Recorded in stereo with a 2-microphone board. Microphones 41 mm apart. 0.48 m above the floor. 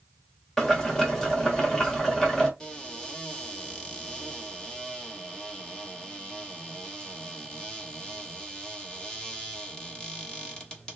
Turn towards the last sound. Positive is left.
turn(degrees=25)  # may be behind; listen again after turning